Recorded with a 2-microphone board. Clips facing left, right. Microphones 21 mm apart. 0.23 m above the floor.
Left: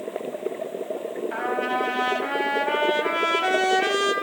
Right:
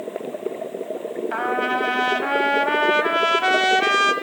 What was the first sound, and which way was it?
A trumpet, 20° right (ahead or behind).